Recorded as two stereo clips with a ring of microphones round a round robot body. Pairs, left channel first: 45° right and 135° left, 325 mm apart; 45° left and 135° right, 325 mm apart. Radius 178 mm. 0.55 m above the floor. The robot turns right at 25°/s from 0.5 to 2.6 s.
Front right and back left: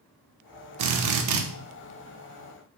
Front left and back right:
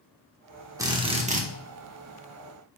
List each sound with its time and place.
0.8 s a drill: 145° left, 1.2 m; by 1.4 s 160° left, 1.2 m